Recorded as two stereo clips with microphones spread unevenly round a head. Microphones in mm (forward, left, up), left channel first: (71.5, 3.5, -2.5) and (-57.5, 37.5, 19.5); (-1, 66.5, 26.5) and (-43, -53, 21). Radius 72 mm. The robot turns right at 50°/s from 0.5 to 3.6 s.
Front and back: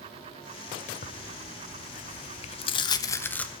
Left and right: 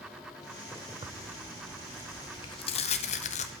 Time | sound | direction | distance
1.0 | tearing paper | 50° right | 0.5 m